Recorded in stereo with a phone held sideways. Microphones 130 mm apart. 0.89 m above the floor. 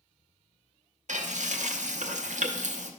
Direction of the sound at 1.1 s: 70° right (ahead or behind).